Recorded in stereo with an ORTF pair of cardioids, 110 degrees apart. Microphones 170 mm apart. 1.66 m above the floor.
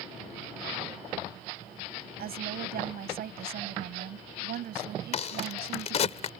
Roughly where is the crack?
Ahead left.